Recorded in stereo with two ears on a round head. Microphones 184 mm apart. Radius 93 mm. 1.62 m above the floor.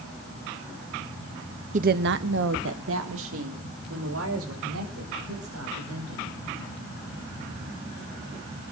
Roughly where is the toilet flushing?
I don't hear a toilet flushing.